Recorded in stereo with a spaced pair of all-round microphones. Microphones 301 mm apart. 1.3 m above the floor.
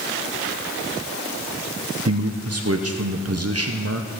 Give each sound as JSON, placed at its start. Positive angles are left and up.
{"t": 2.0, "sound": "a man speaking", "side_deg": -50, "distance_m": 0.6}